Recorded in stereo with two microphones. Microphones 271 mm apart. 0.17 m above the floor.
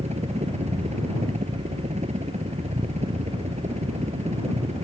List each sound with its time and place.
0.0 s a helicopter: 25° right (ahead or behind)